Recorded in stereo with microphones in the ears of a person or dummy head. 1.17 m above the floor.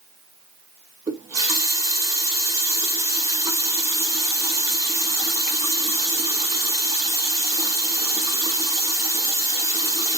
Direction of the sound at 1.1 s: 20° right (ahead or behind).